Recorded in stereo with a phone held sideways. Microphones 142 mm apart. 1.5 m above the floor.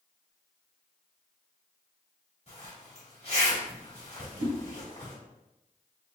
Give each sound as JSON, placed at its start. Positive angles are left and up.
{"t": 2.5, "sound": "a zipper", "side_deg": 50, "distance_m": 1.8}
{"t": 4.4, "sound": "a whoosh", "side_deg": -55, "distance_m": 2.0}